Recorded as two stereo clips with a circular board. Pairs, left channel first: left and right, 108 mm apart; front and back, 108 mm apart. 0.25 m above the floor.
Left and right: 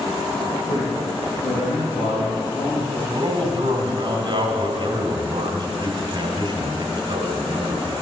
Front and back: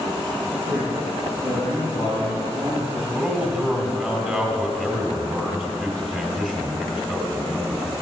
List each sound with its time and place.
0.7 s a man speaking: 100° left, 4.5 m; by 3.0 s 105° left, 6 m
3.1 s a man speaking: 85° right, 2 m